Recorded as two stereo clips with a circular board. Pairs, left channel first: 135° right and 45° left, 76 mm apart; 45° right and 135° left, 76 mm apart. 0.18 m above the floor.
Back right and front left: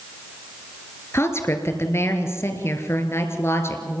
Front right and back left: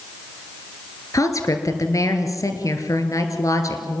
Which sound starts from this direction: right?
A woman speaking, at 1.1 s.